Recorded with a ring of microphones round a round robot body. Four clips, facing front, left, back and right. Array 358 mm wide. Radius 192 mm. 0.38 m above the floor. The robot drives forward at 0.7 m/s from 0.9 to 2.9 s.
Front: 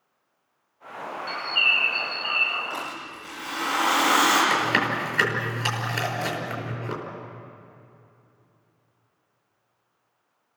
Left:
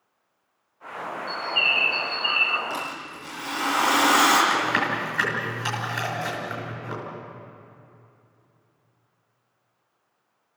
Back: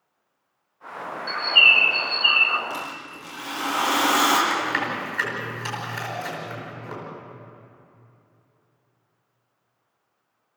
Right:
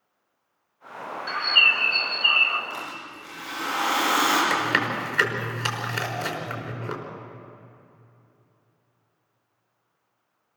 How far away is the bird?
About 0.5 m.